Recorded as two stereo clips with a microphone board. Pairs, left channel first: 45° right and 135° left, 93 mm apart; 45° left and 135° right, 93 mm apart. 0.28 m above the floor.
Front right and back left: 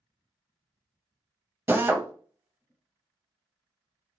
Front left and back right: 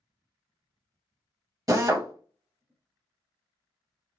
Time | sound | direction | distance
1.7 | a drill | 170° right | 0.7 m